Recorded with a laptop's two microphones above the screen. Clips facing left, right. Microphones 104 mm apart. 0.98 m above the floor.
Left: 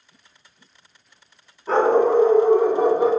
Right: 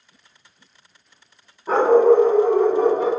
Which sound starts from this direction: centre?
A dog barking, at 1.7 s.